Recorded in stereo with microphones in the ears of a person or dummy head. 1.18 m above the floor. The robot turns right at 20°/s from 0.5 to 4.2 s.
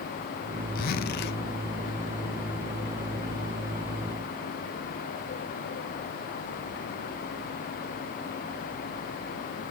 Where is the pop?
No pop in this recording.